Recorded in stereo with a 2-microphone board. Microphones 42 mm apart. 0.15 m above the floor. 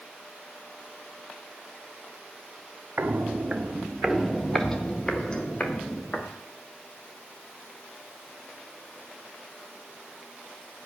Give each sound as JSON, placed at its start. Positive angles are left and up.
{"t": 3.0, "sound": "footsteps", "side_deg": -55, "distance_m": 1.3}